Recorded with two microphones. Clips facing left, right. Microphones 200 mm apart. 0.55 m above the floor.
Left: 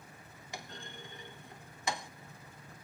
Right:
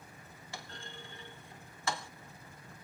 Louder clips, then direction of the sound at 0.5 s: Left 2 dB; 15° left (ahead or behind).